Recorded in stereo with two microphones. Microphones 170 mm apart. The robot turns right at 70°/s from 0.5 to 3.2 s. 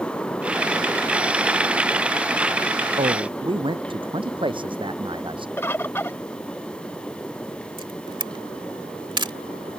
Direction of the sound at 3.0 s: 45° right (ahead or behind).